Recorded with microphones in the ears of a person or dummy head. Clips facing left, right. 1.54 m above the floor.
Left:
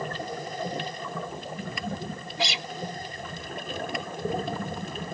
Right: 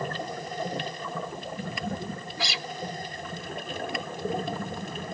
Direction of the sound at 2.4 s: 20° left (ahead or behind).